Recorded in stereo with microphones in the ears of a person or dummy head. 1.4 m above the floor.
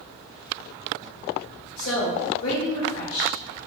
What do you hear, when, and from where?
1.8 s a woman speaking: 75° left (ahead or behind), 1.6 m